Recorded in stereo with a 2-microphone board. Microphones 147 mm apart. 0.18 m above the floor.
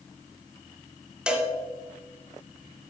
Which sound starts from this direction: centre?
A cowbell, at 1.3 s.